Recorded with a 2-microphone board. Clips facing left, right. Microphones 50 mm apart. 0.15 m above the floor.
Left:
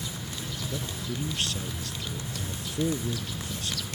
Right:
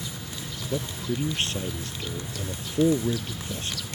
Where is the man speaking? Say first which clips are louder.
Right 8 dB; 35° right (ahead or behind).